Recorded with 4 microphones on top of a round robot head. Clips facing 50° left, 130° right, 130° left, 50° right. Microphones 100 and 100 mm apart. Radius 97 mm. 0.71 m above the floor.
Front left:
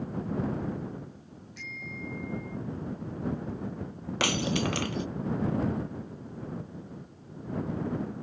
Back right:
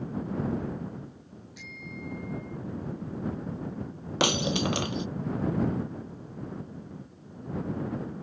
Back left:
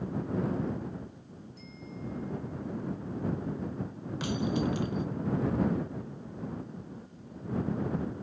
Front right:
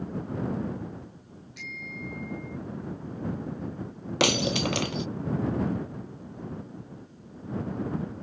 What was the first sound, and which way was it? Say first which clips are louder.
A bicycle bell: front left 1 dB, front right 3 dB; 55° right.